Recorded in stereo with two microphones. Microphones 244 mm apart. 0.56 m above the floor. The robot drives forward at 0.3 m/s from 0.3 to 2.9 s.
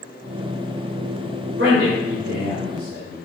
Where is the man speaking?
50° right (ahead or behind), 1.8 m; by 3.2 s 45° right (ahead or behind), 2 m.